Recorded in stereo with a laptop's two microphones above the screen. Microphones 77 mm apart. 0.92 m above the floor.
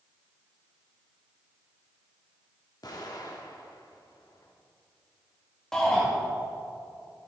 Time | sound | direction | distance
2.8 | an explosion | 60° left (ahead or behind) | 1.3 m
5.7 | a shout | 10° left (ahead or behind) | 1.0 m